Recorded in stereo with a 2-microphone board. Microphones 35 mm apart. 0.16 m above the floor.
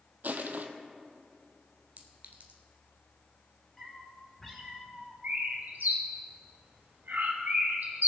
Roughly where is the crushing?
Right.